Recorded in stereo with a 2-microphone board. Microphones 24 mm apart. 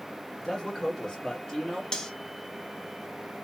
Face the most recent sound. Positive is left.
turn(degrees=30)  # may be behind; listen again after turning